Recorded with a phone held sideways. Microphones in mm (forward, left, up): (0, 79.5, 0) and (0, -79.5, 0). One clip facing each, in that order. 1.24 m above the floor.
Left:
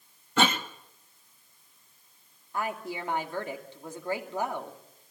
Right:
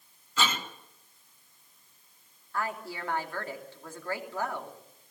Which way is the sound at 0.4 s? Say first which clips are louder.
Left 6 dB; 65° left (ahead or behind).